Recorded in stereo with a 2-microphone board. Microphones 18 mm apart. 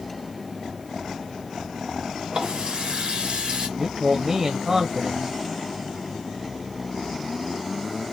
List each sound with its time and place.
2.3 s a running tap: 70° right (ahead or behind), 1.7 m
3.8 s a man speaking: 35° right (ahead or behind), 0.6 m